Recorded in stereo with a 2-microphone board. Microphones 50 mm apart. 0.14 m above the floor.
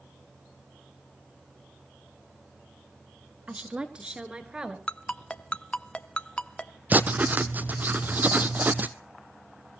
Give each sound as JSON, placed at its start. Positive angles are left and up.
{"t": 3.5, "sound": "a woman speaking", "side_deg": -20, "distance_m": 1.9}
{"t": 4.9, "sound": "a ringtone", "side_deg": 20, "distance_m": 0.7}
{"t": 6.9, "sound": "writing", "side_deg": -35, "distance_m": 0.8}